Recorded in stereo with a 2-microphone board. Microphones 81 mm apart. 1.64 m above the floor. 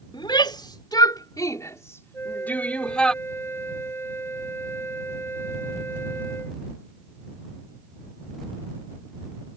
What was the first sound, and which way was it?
A shout, 70° left (ahead or behind).